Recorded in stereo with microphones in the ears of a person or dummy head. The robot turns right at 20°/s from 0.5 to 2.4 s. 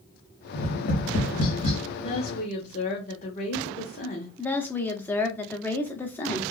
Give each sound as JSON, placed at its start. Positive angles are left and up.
{"t": 0.5, "sound": "tapping", "side_deg": 35, "distance_m": 1.1}
{"t": 2.0, "sound": "a woman speaking", "side_deg": 30, "distance_m": 0.8}
{"t": 4.4, "sound": "a woman speaking", "side_deg": 10, "distance_m": 0.6}